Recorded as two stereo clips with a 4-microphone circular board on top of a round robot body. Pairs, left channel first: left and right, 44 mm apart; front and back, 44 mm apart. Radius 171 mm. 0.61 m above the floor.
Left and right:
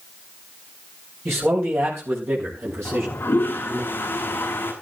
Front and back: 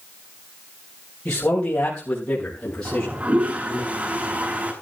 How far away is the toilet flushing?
About 6 m.